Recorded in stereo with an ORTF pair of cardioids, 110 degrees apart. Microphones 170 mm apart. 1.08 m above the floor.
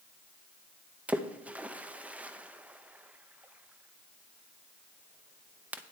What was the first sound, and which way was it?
A splash, 10° right.